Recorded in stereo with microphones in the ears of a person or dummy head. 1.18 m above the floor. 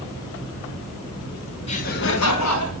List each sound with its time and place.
1.7 s laughter: 30° left (ahead or behind), 1.1 m; by 2.7 s 65° left (ahead or behind), 1.4 m